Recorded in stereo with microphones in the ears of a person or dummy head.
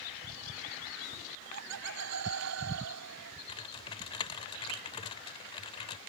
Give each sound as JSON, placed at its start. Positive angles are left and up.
{"t": 1.3, "sound": "laughter", "side_deg": -80}
{"t": 3.5, "sound": "typing on a keyboard", "side_deg": 25}